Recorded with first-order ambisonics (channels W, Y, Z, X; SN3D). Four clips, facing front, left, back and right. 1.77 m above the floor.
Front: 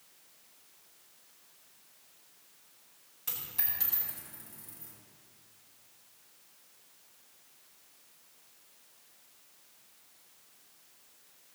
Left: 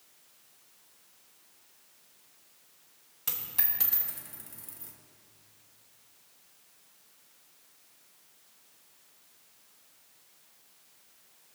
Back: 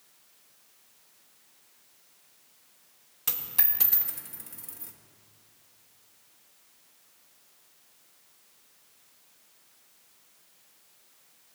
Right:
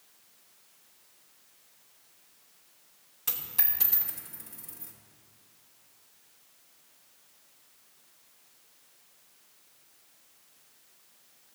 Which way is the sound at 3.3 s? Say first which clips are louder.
Right 1 dB, back 6 dB; 165° left.